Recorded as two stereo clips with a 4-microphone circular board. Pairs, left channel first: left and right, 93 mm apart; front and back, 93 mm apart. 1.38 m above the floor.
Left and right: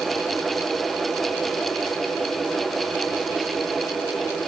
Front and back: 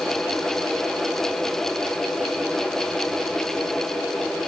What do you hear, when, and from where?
Only background noise.